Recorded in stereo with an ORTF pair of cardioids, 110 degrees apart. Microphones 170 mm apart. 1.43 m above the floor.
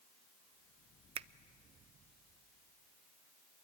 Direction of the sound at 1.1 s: 40° right.